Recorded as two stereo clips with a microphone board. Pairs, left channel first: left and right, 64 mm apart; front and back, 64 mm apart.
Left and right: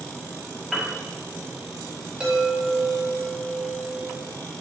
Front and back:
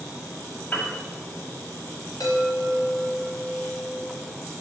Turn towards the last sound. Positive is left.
turn(degrees=-15)